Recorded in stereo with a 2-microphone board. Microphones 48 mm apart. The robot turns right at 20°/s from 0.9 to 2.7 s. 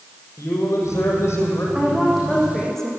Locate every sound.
0.4 s a man speaking: 70° left (ahead or behind), 7 m; by 1.6 s 55° left (ahead or behind), 7 m
1.8 s a woman speaking: 10° right (ahead or behind), 7.5 m; by 2.9 s 10° left (ahead or behind), 7.5 m